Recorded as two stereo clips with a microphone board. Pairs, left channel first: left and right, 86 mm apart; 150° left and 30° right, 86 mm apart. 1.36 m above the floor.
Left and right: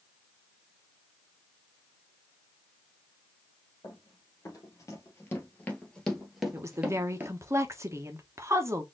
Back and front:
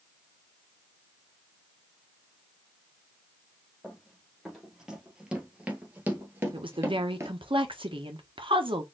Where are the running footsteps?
60° left, 2.5 m; by 7.3 s 50° right, 1.6 m.